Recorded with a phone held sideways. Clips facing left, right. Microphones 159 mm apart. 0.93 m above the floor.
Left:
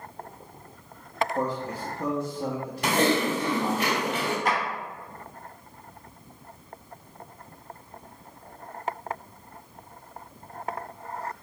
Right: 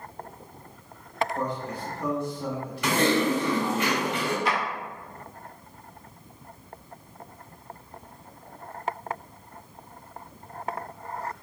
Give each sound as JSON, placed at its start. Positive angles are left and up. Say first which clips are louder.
{"t": 1.3, "sound": "a man speaking", "louder": "left 2 dB", "side_deg": 40, "distance_m": 0.8}
{"t": 2.8, "sound": "typing on a keyboard", "louder": "right 1 dB", "side_deg": 35, "distance_m": 1.3}
{"t": 4.5, "sound": "a clap", "louder": "left 2 dB", "side_deg": 45, "distance_m": 0.7}